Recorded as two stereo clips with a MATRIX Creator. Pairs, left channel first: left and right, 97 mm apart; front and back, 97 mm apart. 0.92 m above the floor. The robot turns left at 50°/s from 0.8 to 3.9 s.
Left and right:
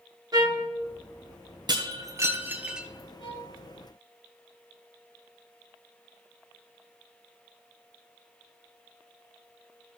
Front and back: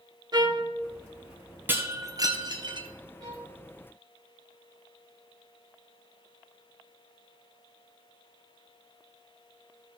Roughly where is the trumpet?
Behind right.